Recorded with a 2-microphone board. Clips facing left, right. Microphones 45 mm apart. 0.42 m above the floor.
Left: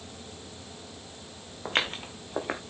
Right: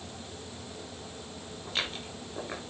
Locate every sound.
1.6 s footsteps: 50° left (ahead or behind), 2.5 m